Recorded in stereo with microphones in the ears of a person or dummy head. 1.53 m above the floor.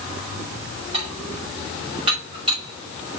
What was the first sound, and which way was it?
Dishes clattering, 30° right (ahead or behind).